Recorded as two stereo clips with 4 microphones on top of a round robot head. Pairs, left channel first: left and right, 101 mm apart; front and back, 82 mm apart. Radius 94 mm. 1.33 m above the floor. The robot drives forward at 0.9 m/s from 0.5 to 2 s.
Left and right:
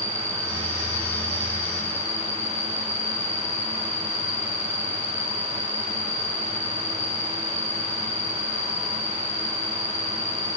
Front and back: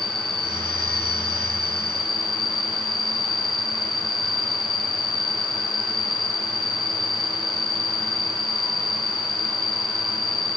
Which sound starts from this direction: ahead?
An insect, at 0.0 s.